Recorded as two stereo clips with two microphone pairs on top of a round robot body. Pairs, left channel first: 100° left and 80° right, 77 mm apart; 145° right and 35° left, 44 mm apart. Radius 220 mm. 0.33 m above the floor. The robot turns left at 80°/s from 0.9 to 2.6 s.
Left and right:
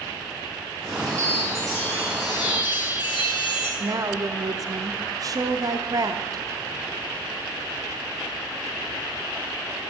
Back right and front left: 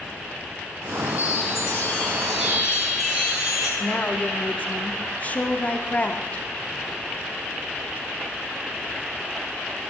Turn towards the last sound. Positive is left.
turn(degrees=-95)